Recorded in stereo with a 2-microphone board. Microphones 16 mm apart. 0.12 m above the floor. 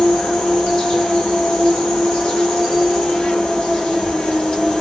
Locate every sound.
0.0 s an insect: 65° left (ahead or behind), 2.5 m